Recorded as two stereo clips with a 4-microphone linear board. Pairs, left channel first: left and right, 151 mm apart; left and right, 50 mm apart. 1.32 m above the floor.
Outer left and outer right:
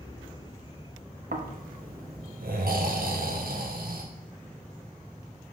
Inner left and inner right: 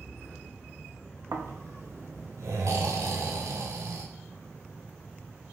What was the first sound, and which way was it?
Snoring, 75° right (ahead or behind).